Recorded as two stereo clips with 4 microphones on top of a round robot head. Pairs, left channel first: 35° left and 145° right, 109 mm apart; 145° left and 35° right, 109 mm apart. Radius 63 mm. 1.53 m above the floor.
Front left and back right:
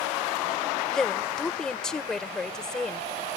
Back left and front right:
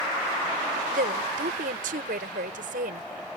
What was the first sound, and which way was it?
A woman speaking, 50° right.